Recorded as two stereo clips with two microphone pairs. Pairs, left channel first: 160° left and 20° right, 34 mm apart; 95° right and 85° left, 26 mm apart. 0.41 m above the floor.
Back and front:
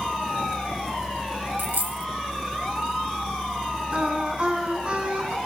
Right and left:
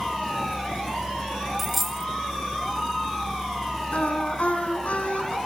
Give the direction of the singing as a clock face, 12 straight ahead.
3 o'clock.